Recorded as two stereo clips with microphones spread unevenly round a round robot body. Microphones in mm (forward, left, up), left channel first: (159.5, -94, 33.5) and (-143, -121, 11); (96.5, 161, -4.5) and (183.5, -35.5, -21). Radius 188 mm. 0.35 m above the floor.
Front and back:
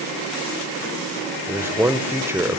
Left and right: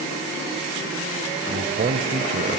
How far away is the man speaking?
About 1.1 m.